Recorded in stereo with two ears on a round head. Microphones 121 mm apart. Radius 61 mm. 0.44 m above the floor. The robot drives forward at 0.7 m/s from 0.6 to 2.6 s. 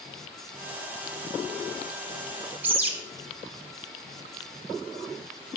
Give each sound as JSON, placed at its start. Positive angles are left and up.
{"t": 2.6, "sound": "a bird", "side_deg": -15, "distance_m": 1.2}